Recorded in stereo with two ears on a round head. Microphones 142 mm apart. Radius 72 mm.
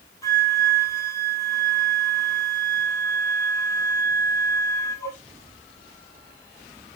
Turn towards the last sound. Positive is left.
turn(degrees=20)  # may be behind; listen again after turning